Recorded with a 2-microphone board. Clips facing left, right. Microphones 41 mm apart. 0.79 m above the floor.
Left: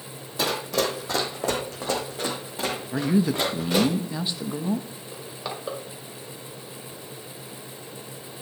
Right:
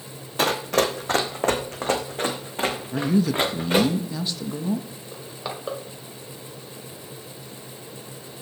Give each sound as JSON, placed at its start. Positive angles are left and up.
{"t": 0.4, "sound": "running footsteps", "side_deg": -55, "distance_m": 1.4}
{"t": 2.9, "sound": "a man speaking", "side_deg": 20, "distance_m": 0.7}
{"t": 5.1, "sound": "crushing", "side_deg": -5, "distance_m": 1.7}